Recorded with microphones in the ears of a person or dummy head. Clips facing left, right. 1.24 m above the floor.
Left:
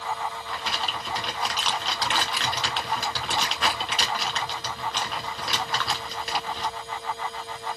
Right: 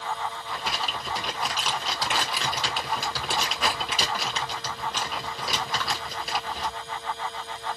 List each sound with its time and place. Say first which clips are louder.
0.5 s crumpling: even; 5° right (ahead or behind), 2 m